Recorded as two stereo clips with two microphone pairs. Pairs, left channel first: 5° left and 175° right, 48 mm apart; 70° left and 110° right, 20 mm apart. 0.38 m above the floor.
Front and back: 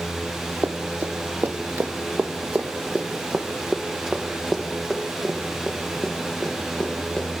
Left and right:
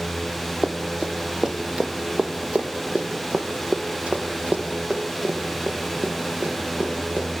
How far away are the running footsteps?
About 2.5 m.